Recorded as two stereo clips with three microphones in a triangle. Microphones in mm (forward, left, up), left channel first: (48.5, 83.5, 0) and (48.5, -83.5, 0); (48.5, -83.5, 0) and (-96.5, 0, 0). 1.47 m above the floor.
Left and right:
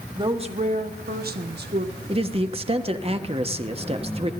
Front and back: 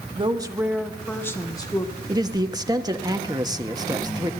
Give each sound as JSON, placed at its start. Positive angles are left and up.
{"t": 0.1, "sound": "a woman speaking", "azimuth_deg": -155, "distance_m": 1.2}
{"t": 2.1, "sound": "a man speaking", "azimuth_deg": -140, "distance_m": 1.3}